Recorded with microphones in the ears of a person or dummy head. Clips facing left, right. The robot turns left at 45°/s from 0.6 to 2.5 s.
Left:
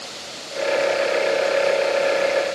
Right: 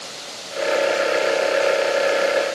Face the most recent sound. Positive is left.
No sound to turn to.